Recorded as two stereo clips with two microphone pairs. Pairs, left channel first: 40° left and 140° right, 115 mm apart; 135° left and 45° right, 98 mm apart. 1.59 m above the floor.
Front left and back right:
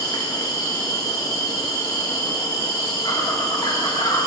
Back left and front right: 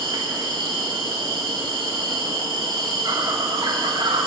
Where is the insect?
10° right, 2 m.